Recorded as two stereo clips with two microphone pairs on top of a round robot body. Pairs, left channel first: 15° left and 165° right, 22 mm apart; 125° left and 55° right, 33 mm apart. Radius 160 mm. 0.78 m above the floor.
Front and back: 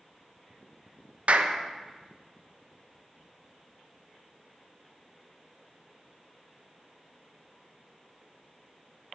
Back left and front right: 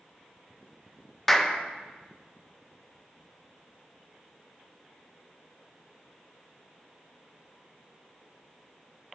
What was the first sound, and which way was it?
A clap, 155° right.